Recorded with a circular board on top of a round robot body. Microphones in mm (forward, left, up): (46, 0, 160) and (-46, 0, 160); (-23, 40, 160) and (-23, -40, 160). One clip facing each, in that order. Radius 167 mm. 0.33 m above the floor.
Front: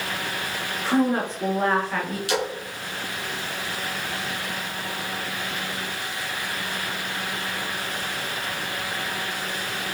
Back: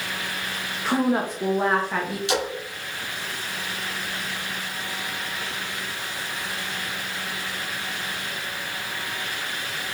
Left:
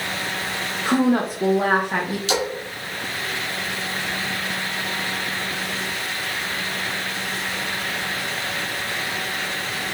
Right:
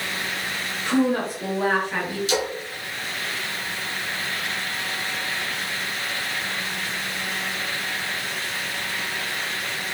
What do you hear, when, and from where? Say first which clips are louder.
0.8 s a woman speaking: even, left 2 dB; 105° left, 1.3 m
2.3 s a splash: even, left 2 dB; 115° left, 1.9 m